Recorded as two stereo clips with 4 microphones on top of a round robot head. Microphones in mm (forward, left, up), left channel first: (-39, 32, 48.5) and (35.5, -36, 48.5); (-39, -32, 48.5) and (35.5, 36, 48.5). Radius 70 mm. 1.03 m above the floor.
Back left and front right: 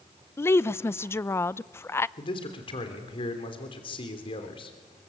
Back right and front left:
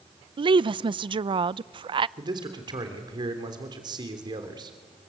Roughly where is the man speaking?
Left.